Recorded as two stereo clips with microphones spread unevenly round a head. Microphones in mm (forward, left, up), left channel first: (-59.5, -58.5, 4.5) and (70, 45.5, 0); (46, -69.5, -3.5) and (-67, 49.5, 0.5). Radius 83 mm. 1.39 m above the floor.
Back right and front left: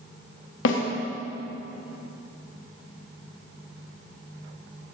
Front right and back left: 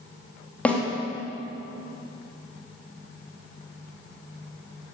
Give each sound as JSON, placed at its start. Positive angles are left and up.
{"t": 0.7, "sound": "a snare drum", "azimuth_deg": -130, "distance_m": 3.5}